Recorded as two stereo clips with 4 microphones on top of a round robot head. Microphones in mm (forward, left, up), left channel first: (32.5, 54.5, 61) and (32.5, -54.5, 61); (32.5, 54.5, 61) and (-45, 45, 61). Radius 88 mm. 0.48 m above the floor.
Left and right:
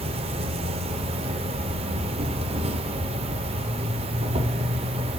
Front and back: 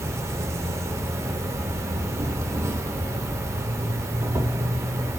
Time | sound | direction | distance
0.0 | an insect | 120° right | 0.7 m